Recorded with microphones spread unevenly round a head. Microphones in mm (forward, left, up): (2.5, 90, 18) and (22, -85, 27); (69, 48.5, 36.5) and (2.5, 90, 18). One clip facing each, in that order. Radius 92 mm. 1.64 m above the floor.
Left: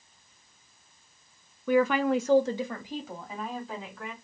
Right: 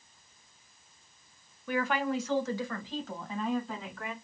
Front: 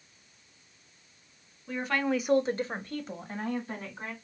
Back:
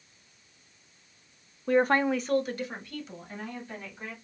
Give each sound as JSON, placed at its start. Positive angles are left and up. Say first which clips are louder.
{"t": 1.7, "sound": "a woman speaking", "louder": "left 7 dB, back 6 dB", "azimuth_deg": 120, "distance_m": 0.7}